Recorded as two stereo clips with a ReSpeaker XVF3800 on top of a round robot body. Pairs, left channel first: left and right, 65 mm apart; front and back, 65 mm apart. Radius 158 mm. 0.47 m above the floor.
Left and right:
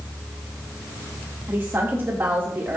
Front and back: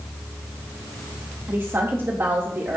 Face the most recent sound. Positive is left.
turn(degrees=-140)